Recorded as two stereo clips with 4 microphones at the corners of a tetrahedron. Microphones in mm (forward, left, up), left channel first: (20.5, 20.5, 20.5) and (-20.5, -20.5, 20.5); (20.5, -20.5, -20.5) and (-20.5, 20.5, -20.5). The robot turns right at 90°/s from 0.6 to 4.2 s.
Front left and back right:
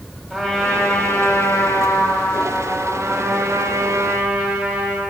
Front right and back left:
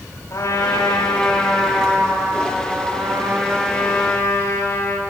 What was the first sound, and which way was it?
A trumpet, 40° right.